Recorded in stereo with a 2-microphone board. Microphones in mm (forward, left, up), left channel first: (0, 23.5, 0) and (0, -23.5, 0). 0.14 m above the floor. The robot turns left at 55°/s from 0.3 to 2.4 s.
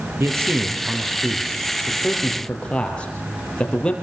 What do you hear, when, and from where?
0.2 s a man speaking: 70° right (ahead or behind), 4.5 m; by 3.9 s 25° left (ahead or behind), 4.5 m